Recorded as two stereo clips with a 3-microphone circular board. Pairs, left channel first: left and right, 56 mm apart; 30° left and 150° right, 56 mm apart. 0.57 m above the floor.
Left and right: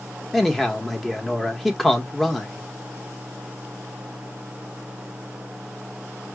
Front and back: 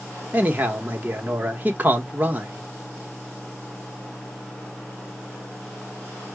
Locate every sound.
0.3 s a man speaking: 175° left, 1.2 m